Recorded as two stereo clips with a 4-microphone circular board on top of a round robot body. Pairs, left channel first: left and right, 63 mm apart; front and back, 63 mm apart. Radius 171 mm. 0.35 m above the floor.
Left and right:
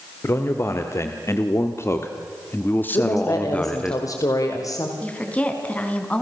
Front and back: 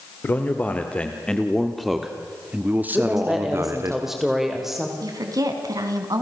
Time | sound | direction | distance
0.2 | a man speaking | 55° left | 2.5 m
2.9 | a woman speaking | 95° left | 2.5 m
5.0 | a woman speaking | 160° left | 4 m